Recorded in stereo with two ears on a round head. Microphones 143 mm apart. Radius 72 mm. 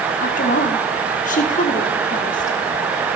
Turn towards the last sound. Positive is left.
turn(degrees=55)  # may be behind; listen again after turning